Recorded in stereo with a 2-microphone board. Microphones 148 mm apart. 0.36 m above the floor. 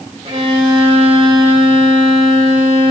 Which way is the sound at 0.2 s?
40° right (ahead or behind).